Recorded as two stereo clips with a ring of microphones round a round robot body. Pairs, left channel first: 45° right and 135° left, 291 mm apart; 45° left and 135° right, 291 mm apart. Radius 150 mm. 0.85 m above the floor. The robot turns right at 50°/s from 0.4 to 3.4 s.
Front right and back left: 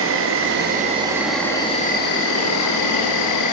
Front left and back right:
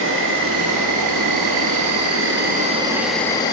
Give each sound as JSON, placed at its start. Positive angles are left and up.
{"t": 0.0, "sound": "an insect", "azimuth_deg": 180, "distance_m": 0.9}